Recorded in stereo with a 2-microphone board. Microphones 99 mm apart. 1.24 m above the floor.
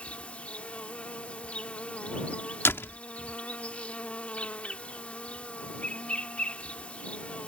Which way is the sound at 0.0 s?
15° left (ahead or behind).